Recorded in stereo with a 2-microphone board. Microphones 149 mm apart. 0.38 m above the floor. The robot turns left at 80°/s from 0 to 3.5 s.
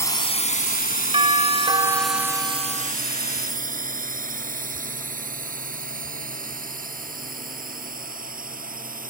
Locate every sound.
0.0 s a drone: 20° left (ahead or behind); by 9.1 s 70° right (ahead or behind)
1.1 s a doorbell: 80° right; by 2.9 s 135° left